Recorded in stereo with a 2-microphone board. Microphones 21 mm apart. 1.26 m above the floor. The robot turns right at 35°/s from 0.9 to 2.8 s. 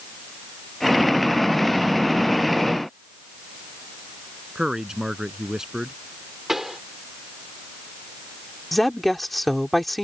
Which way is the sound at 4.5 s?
35° right (ahead or behind).